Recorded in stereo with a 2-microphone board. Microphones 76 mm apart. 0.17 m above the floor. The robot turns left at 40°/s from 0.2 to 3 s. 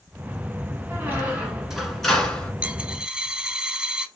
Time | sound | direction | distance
0.9 | a squeak | 140° right | 1.5 m
2.6 | a dropped coin | 15° right (ahead or behind) | 0.5 m